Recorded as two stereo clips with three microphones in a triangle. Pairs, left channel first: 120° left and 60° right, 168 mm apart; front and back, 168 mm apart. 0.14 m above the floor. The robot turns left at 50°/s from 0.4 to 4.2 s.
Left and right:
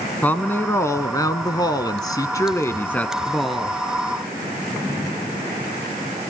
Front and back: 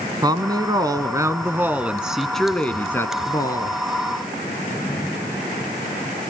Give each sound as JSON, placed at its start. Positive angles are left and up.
{"t": 0.2, "sound": "a woman speaking", "azimuth_deg": -175, "distance_m": 1.1}